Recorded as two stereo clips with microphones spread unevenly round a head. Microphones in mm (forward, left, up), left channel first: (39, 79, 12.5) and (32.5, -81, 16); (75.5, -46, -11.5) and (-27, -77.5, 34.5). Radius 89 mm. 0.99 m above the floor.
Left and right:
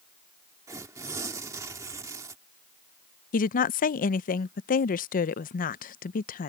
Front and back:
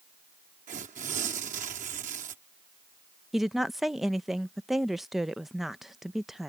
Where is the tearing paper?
165° right.